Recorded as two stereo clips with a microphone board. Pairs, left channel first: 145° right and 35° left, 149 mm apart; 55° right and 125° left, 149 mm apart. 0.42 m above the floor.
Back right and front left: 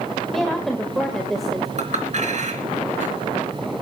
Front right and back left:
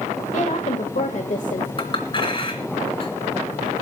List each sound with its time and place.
0.3 s a woman speaking: 60° right, 1.9 m
1.8 s a clink: straight ahead, 3 m